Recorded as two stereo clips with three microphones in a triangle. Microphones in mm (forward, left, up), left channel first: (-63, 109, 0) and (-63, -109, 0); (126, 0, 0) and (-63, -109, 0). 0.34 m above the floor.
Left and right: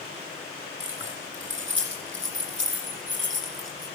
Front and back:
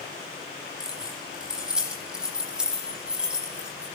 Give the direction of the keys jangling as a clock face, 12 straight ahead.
2 o'clock.